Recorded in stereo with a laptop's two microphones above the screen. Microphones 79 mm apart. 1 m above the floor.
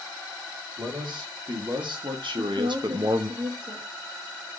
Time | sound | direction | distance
0.8 | a man speaking | 70° right (ahead or behind) | 1.6 m
2.3 | a woman speaking | 60° right (ahead or behind) | 1.0 m